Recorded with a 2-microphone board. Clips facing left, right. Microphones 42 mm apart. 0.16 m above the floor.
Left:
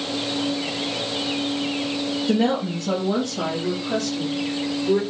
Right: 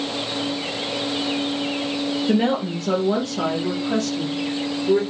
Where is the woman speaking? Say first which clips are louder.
Even; 20° right (ahead or behind), 3.5 m; by 5.0 s 5° right (ahead or behind), 4.5 m.